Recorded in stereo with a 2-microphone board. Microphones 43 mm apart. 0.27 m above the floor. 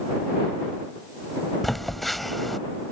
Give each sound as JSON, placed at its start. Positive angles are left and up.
{"t": 1.6, "sound": "a phone buzzing", "side_deg": 5}